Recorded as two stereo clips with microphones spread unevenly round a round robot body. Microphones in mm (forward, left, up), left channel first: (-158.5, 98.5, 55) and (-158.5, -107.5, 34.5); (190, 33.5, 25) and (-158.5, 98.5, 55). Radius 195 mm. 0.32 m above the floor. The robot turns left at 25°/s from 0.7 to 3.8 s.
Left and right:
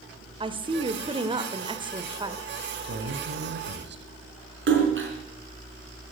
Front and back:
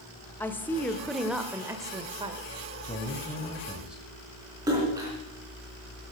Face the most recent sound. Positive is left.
turn(degrees=-110)